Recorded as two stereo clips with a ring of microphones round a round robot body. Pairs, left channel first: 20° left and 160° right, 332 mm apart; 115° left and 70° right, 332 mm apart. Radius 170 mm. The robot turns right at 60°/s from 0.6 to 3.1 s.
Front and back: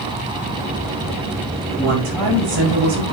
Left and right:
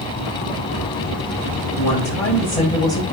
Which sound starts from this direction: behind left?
A woman speaking, at 1.6 s.